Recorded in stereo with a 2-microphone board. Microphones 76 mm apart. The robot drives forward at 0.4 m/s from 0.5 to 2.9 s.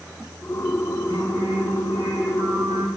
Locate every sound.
1.1 s singing: 60° right (ahead or behind), 6.5 m; by 2.9 s 55° right (ahead or behind), 7 m